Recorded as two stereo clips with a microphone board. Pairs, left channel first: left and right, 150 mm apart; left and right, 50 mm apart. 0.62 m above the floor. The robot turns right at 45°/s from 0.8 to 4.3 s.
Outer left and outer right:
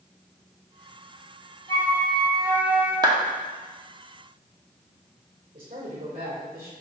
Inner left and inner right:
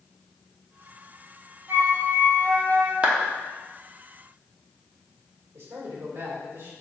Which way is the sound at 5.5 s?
65° right (ahead or behind).